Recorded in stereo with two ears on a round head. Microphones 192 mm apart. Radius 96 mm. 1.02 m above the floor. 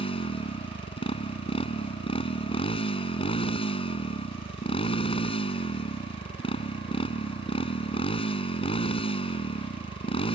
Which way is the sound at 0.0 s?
25° left (ahead or behind).